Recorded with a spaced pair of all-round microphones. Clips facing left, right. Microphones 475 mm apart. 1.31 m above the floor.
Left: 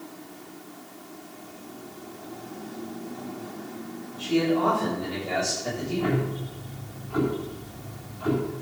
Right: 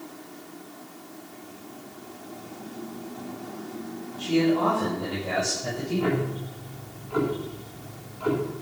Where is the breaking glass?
I don't hear breaking glass.